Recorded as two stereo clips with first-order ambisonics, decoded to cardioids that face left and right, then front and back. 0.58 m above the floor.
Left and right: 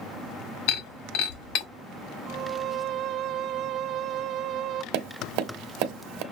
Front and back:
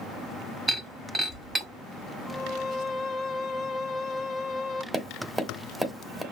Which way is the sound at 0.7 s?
100° left.